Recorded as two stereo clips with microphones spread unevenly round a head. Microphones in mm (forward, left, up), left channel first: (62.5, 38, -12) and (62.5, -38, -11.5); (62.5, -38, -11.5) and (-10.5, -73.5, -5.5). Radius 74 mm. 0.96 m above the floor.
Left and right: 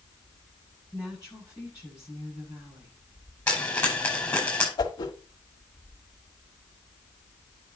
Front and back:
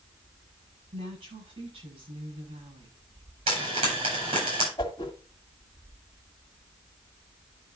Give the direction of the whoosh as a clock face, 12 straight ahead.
9 o'clock.